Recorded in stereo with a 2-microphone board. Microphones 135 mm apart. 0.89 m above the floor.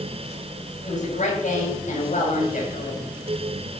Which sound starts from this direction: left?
A woman speaking, at 0.8 s.